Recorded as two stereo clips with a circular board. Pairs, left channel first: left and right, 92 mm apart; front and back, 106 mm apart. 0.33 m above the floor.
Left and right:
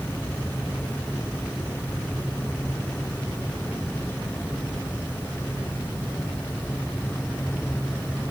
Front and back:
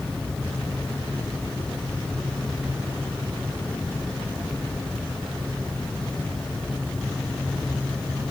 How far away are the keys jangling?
I don't hear keys jangling.